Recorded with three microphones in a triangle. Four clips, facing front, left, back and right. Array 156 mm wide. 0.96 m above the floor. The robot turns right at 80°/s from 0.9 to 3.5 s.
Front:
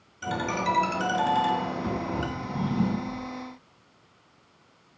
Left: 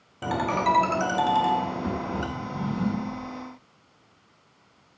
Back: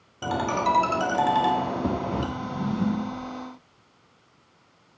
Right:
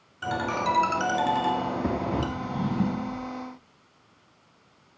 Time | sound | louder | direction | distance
0.2 | a ringtone | left 3 dB, back 3 dB | 135° left | 1.3 m
2.4 | a drawer | right 2 dB, even | 80° right | 2.5 m